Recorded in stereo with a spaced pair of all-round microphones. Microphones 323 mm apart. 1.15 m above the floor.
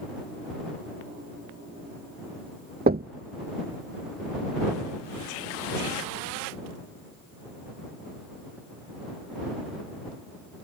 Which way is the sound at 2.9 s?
30° right (ahead or behind).